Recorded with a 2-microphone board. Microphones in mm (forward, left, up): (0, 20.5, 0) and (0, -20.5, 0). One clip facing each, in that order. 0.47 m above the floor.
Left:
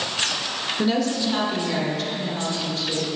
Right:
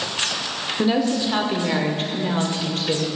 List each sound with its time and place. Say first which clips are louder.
0.8 s a woman speaking: right 3 dB; 10° right (ahead or behind), 1.1 m; by 3.1 s 55° right (ahead or behind), 1.8 m